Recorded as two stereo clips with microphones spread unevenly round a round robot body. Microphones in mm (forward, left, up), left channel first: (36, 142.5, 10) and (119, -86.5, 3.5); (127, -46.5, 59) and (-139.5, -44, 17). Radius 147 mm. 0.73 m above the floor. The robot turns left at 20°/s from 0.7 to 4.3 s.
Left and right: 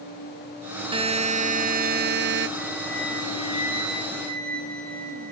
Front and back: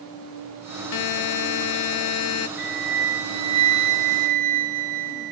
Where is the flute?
130° right, 0.7 m; by 5.3 s 165° right, 0.7 m.